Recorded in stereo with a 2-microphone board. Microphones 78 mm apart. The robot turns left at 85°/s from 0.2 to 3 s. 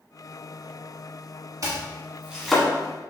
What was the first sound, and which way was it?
Chopping, 50° right (ahead or behind).